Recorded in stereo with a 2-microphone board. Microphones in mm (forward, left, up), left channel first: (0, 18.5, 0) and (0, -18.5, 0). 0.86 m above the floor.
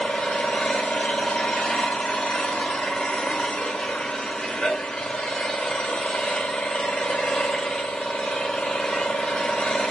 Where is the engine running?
25° left (ahead or behind), 1.4 m.